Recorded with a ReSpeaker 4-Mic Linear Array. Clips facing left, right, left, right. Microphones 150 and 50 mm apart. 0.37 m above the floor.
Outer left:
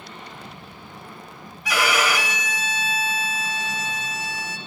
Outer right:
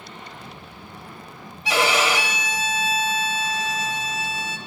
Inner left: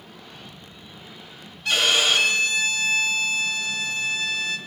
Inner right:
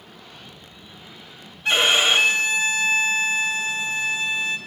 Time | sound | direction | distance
1.6 | a violin | 25° right (ahead or behind) | 1.2 m